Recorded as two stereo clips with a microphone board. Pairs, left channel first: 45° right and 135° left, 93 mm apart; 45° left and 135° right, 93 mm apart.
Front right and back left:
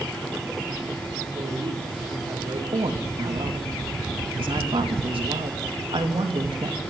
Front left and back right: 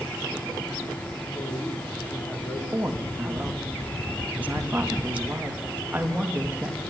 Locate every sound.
1.4 s a man speaking: 110° left, 5.5 m
2.7 s a woman speaking: 150° left, 3.5 m